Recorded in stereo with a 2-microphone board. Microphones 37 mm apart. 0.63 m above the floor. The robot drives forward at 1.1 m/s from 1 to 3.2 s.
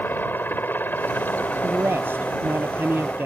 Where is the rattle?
I don't hear a rattle.